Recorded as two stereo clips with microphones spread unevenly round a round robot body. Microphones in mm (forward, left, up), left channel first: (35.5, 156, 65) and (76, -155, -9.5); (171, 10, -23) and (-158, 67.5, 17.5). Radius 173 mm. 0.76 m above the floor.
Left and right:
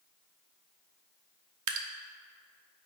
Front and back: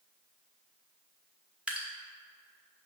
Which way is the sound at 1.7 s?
100° right.